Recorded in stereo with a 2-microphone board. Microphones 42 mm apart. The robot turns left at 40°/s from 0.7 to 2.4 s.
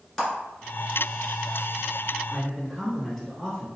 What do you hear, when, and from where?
0.2 s a clap: 10° left (ahead or behind), 2.0 m
2.3 s a man speaking: centre (ahead or behind), 1.7 m